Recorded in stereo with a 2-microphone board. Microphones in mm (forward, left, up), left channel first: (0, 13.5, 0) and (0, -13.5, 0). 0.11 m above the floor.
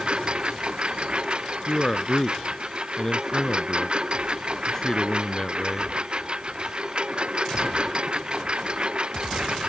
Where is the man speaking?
20° left (ahead or behind).